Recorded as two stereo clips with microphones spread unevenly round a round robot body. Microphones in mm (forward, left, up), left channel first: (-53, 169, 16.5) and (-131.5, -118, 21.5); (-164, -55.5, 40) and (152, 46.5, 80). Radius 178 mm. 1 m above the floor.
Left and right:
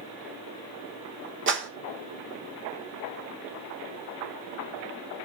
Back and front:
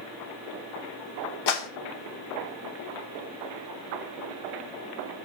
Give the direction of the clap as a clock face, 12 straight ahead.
5 o'clock.